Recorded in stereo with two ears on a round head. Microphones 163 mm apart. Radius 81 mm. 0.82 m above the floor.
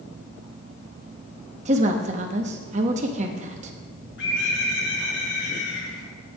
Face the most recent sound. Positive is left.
turn(degrees=65)  # may be behind; listen again after turning